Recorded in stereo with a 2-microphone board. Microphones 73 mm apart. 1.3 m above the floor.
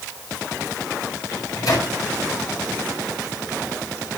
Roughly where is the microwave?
Left.